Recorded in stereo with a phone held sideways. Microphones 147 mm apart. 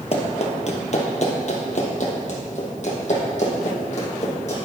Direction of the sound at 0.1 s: 45° left (ahead or behind).